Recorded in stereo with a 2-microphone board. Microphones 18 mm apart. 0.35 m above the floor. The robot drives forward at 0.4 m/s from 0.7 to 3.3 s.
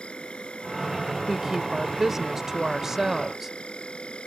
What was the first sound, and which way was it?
An insect, 75° left (ahead or behind).